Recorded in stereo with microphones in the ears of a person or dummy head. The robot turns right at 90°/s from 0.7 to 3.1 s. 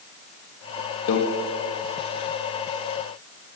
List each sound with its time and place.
1.1 s a microwave: 85° left, 1.2 m; by 1.2 s 75° left (ahead or behind), 1.2 m